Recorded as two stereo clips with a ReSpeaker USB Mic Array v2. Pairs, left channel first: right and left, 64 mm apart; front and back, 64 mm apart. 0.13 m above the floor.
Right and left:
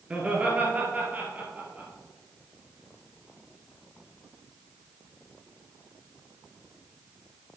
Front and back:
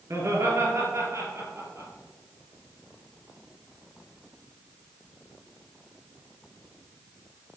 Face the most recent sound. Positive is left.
turn(degrees=150)